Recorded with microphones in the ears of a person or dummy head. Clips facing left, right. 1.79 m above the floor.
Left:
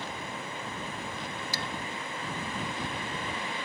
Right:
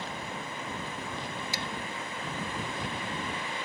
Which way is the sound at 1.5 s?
20° right (ahead or behind).